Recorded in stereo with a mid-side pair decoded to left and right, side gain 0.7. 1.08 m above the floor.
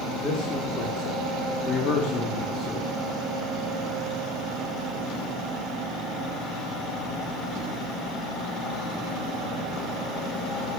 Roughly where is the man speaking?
Ahead left.